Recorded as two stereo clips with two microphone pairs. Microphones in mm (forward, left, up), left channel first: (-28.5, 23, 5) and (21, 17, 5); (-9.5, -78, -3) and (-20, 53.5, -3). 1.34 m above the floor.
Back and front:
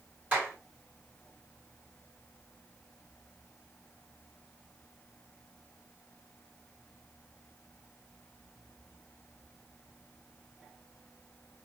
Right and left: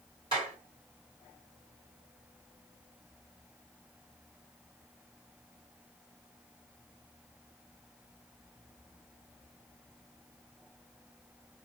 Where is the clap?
45° left, 3 m.